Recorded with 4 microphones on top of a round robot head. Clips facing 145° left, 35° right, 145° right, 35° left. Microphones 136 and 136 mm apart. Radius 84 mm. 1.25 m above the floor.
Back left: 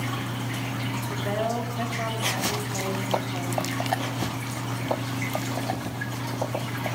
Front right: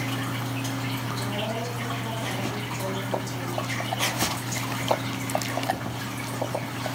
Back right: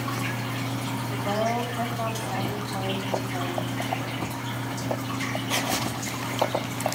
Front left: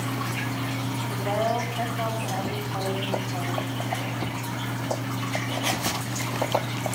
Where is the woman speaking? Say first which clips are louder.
Back left 6 dB, front left 1 dB; 125° left, 5 m.